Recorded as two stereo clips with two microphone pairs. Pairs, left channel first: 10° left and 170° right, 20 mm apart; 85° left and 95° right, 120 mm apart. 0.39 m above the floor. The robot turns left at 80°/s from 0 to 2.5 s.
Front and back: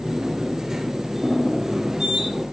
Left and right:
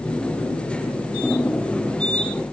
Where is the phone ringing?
I don't hear a phone ringing.